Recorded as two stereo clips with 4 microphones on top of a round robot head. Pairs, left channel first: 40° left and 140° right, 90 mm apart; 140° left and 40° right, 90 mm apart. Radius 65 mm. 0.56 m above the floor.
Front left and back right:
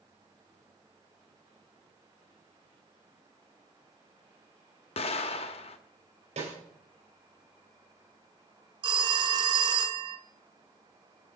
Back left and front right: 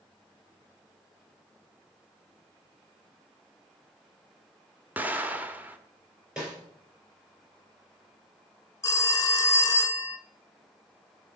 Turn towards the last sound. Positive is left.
turn(degrees=-165)